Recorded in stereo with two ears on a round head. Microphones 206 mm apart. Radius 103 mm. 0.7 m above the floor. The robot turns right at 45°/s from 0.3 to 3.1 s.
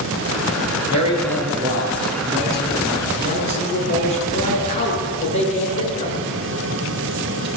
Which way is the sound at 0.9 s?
70° right.